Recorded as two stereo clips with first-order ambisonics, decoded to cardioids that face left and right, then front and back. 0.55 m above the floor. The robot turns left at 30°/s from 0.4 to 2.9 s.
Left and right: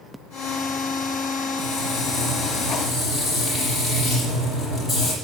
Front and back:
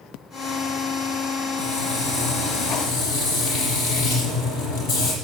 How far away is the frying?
About 6.5 m.